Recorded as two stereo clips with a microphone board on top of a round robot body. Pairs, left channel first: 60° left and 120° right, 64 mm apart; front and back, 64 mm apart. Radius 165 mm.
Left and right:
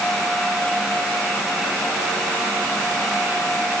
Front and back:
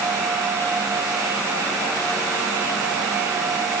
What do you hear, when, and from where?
Only background noise.